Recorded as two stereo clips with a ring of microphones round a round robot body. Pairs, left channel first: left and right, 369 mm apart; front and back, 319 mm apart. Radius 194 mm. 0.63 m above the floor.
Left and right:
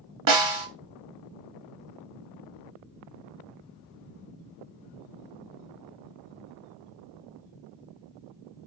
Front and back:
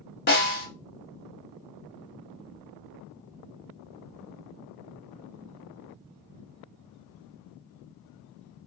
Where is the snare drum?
60° right, 1.2 m.